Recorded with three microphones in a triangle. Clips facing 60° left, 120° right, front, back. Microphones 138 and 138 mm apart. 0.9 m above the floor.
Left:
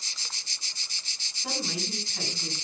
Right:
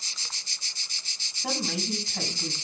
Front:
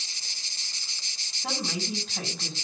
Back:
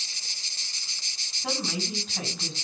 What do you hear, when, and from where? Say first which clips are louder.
1.4 s a woman speaking: right 3 dB, back 1 dB; 90° right, 6 m